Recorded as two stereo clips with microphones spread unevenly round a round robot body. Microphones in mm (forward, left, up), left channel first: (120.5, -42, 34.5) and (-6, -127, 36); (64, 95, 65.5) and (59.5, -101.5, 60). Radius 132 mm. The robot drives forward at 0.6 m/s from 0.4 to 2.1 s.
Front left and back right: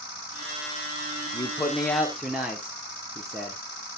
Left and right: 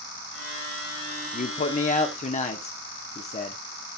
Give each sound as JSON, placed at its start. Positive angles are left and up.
{"t": 1.3, "sound": "a man speaking", "azimuth_deg": 95, "distance_m": 1.1}